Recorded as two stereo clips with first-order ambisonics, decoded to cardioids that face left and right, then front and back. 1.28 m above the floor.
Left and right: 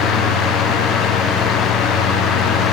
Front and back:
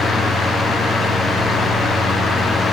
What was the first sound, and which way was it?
Only background noise.